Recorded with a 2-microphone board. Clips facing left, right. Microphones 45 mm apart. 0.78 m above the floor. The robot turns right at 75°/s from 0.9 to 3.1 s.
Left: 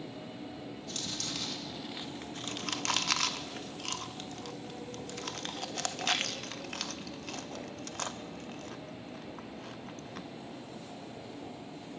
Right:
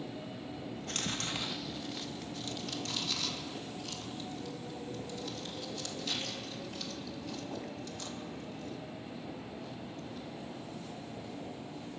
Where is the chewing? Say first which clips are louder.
Right 6 dB; 55° right (ahead or behind), 0.5 m; by 10.3 s 60° left (ahead or behind), 0.5 m.